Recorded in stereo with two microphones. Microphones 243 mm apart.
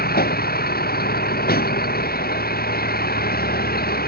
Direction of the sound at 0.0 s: 40° left (ahead or behind).